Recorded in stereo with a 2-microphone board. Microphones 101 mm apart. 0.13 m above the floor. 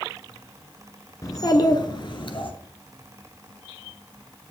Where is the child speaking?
35° left (ahead or behind), 1.1 m; by 2.5 s 60° left (ahead or behind), 1.5 m.